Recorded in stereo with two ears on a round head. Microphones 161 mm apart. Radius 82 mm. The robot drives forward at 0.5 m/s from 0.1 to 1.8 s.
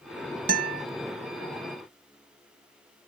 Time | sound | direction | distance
0.5 | a guitar | 60° right (ahead or behind) | ?